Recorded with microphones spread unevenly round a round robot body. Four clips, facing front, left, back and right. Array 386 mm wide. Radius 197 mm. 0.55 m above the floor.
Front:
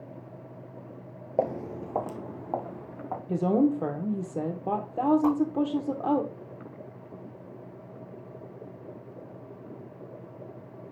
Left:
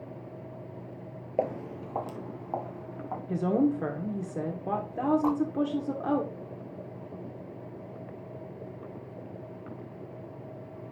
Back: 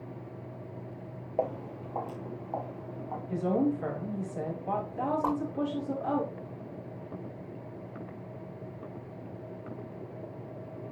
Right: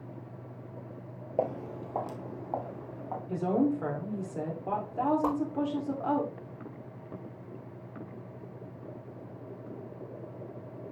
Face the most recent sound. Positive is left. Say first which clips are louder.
# left 2 dB, front 5 dB
turn(degrees=-45)